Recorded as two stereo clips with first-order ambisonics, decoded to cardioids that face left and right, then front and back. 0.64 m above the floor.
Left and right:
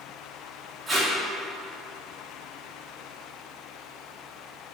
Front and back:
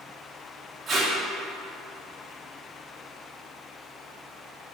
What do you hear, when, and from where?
0.9 s tape being pulled: 150° right, 0.5 m